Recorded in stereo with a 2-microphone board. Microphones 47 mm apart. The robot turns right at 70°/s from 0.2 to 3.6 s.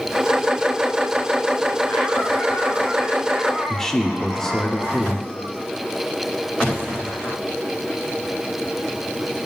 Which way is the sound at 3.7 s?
10° left (ahead or behind).